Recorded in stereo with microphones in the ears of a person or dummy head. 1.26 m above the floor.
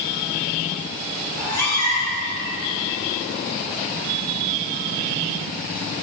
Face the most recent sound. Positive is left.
turn(degrees=20)  # may be behind; listen again after turning